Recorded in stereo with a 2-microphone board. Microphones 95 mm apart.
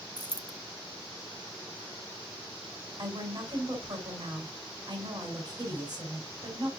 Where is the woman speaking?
45° right (ahead or behind), 4.5 m.